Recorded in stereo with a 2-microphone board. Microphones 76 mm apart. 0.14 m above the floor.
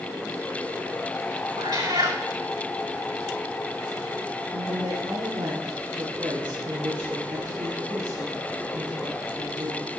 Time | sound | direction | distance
1.6 | a cat meowing | 50° right (ahead or behind) | 5 m
4.5 | a woman speaking | 55° right (ahead or behind) | 5.5 m